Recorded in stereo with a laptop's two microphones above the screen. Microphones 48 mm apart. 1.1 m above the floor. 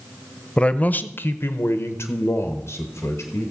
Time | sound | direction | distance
0.6 | a man speaking | 20° left (ahead or behind) | 0.6 m